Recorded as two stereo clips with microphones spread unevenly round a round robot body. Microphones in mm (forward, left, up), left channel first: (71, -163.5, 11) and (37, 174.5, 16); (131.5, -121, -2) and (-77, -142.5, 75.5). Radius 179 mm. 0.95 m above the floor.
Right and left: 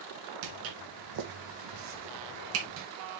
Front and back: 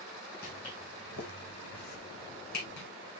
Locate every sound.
0.4 s footsteps: 75° left, 2.5 m; by 2.9 s 45° left, 2.5 m